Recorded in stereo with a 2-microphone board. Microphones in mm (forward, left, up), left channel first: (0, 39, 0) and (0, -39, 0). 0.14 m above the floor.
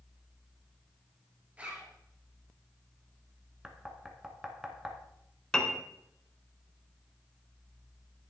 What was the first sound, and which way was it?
A zipper, 20° right (ahead or behind).